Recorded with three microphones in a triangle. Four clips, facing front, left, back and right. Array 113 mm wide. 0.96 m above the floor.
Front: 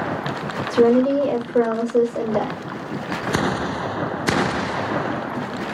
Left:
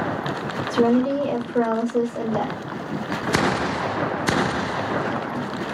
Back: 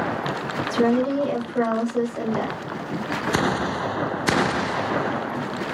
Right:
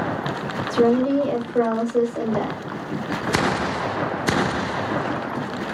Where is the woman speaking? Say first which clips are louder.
Right 1 dB, front 5 dB; 15° left, 1.9 m.